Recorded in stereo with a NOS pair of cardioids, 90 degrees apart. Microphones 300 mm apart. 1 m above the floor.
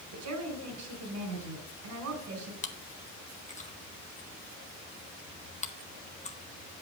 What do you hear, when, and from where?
0.1 s a woman speaking: 65° right, 4.5 m
2.6 s chewing: 25° left, 1.3 m